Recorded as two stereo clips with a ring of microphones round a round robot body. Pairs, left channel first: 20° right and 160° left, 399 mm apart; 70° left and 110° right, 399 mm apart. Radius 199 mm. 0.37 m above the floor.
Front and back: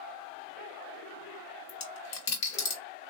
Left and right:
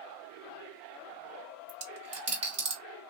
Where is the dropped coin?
40° right, 1.7 m.